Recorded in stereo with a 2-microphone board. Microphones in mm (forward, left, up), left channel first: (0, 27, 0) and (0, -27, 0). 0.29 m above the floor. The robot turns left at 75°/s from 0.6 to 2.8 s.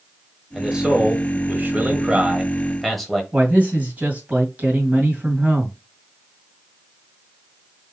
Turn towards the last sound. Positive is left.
turn(degrees=-30)  # may be behind; listen again after turning